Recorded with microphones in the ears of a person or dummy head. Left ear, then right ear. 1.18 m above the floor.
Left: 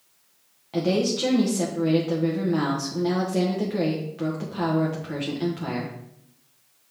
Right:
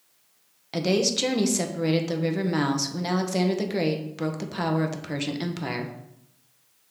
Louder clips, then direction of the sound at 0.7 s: Even; 60° right (ahead or behind).